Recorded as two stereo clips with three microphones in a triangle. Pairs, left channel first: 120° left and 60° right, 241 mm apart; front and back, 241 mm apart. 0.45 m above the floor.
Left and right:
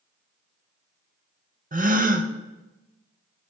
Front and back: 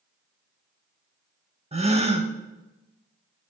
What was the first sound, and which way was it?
A gasp, 120° right.